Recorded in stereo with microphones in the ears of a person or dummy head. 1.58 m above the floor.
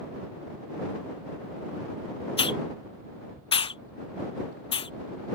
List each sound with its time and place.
2.4 s a hiss: 30° left (ahead or behind)